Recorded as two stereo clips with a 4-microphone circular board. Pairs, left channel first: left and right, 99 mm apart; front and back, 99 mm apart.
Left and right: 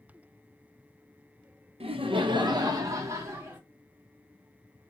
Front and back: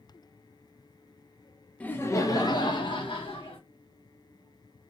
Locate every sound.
1.8 s laughter: 75° right, 0.5 m; by 3.6 s 25° right, 1.2 m